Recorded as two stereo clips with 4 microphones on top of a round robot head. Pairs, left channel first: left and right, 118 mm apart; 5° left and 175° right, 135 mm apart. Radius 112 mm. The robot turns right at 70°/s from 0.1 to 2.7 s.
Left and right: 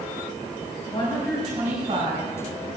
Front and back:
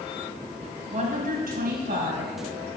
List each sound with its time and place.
0.9 s a woman speaking: 145° left, 4 m; by 2.3 s 120° right, 4 m